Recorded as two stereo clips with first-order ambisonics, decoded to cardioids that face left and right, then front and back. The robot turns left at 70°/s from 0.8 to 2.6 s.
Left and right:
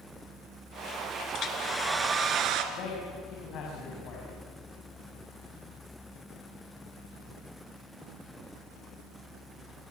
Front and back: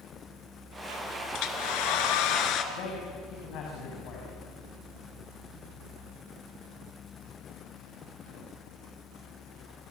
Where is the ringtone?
I don't hear a ringtone.